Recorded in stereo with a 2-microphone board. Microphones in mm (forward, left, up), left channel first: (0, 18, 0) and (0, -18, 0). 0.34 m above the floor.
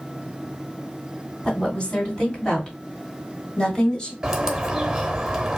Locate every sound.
1.4 s a woman speaking: 25° left (ahead or behind), 2.5 m; by 4.1 s 20° left (ahead or behind), 1.4 m
4.2 s a bird: 15° right (ahead or behind), 0.8 m